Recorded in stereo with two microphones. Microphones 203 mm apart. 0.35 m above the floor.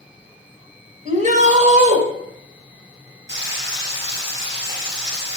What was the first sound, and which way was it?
A shout, 35° right (ahead or behind).